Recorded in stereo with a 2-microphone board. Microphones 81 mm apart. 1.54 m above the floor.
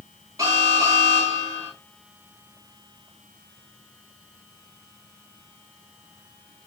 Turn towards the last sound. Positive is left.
turn(degrees=-45)  # may be behind; listen again after turning